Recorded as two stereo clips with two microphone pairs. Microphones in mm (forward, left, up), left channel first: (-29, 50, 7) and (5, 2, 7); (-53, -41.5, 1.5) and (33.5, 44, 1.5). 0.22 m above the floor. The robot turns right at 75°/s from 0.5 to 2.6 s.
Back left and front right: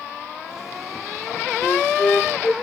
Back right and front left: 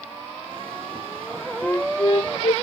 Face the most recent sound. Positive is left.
turn(degrees=-145)